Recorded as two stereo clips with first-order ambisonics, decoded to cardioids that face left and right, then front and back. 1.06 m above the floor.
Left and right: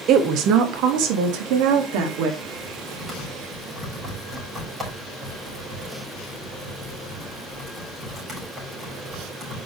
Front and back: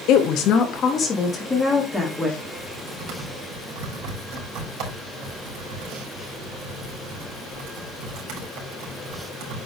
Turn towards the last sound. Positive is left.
turn(degrees=-165)